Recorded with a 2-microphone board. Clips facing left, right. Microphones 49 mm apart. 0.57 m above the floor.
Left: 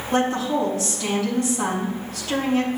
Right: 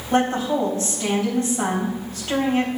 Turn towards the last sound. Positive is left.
turn(degrees=-35)  # may be behind; listen again after turning